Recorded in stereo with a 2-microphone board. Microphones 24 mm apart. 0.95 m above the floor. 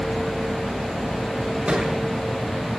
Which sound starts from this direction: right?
A thud, at 1.7 s.